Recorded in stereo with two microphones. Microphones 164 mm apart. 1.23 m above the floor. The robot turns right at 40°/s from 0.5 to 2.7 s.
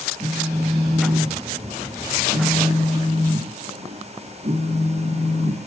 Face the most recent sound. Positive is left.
turn(degrees=-60)